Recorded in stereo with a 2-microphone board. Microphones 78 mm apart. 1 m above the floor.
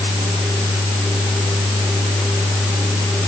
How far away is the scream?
No scream in this recording.